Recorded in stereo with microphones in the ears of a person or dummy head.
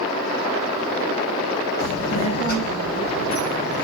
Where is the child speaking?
70° left (ahead or behind), 4 m; by 3.8 s 60° left (ahead or behind), 6 m.